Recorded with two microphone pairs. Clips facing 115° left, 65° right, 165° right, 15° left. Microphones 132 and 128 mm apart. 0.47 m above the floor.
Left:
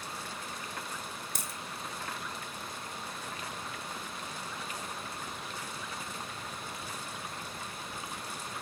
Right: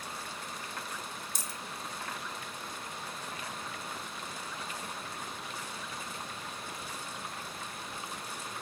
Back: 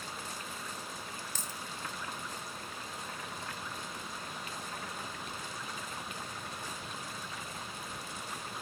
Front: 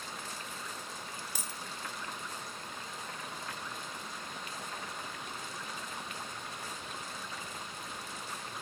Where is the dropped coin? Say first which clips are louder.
Left 1 dB, even; 95° left, 1.0 m.